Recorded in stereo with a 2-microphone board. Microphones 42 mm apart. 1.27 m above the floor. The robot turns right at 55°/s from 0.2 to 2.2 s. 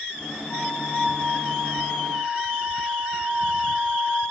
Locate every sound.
0.5 s a flute: 110° left, 6 m; by 4.2 s 155° right, 6 m